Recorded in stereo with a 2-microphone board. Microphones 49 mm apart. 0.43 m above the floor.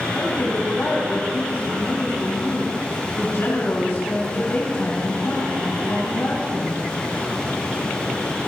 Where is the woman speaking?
55° left (ahead or behind), 3.5 m.